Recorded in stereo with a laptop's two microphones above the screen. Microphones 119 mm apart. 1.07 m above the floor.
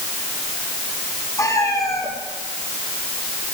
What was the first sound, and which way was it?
A cat meowing, 25° left (ahead or behind).